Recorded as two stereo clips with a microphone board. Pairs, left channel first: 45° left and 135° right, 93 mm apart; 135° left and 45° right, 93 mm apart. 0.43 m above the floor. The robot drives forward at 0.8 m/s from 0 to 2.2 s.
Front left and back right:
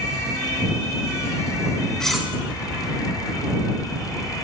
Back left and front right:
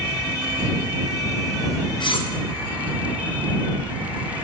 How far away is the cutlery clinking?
About 0.5 m.